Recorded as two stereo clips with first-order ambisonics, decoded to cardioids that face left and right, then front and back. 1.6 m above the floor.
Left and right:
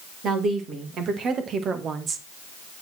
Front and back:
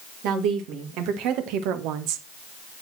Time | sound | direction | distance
0.2 | a woman speaking | 145° right | 2.5 m